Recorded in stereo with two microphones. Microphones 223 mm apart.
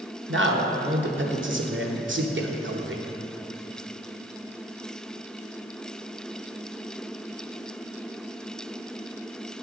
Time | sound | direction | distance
0.3 | a man speaking | 60° right (ahead or behind) | 1.1 m